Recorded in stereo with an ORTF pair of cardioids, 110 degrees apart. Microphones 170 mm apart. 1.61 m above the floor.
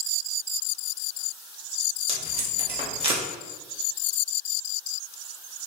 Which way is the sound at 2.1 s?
35° right.